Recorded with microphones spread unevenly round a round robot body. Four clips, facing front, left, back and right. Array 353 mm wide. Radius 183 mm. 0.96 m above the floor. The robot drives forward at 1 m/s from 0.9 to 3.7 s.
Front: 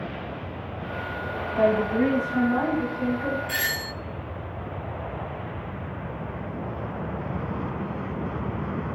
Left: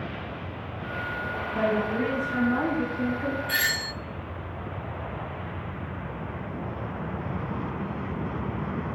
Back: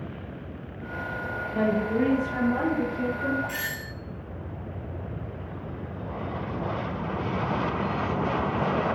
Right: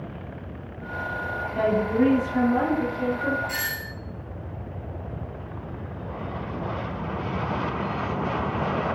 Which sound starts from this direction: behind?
A woman speaking, at 1.5 s.